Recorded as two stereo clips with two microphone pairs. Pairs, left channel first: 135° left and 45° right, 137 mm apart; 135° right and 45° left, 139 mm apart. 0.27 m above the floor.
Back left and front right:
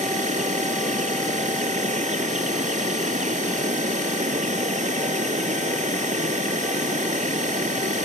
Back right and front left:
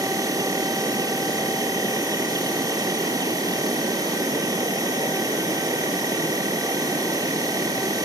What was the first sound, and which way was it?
An insect, 20° right.